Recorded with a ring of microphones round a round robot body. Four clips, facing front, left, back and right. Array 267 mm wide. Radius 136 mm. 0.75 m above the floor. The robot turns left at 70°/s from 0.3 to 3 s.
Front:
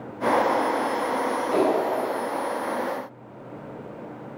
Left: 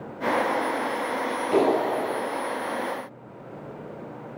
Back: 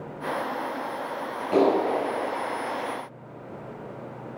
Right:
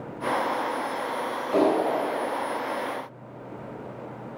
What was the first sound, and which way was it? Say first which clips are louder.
A clap: even, back 3 dB; 130° left.